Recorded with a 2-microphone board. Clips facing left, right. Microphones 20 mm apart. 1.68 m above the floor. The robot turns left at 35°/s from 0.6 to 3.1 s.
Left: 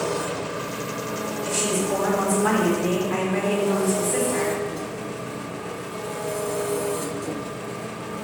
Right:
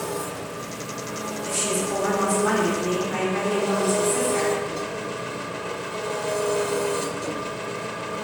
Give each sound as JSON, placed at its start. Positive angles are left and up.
{"t": 0.0, "sound": "an engine running", "azimuth_deg": 35, "distance_m": 0.7}
{"t": 1.4, "sound": "a woman speaking", "azimuth_deg": 145, "distance_m": 4.0}